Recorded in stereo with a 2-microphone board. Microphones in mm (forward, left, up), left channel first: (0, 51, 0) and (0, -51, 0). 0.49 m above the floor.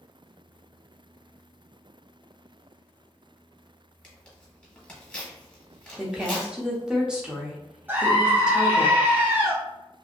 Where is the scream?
20° right (ahead or behind), 0.8 m.